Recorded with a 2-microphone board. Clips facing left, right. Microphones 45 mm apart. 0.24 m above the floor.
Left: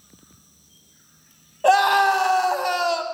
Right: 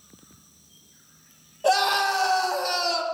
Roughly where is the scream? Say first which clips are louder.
Left 5 dB; left.